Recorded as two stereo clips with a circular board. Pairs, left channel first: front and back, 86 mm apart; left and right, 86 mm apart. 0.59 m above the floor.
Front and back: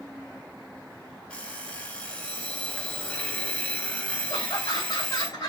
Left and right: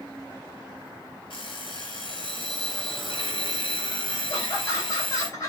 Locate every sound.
1.3 s an alarm clock: 80° left, 1.9 m
4.3 s laughter: 45° left, 3 m